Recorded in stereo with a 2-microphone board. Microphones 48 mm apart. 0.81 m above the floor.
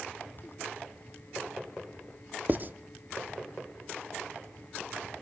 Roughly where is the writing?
Right.